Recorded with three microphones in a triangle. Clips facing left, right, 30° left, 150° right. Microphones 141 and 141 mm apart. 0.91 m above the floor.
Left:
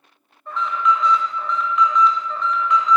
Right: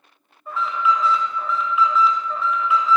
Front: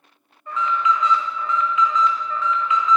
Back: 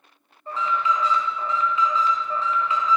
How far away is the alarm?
About 1.5 m.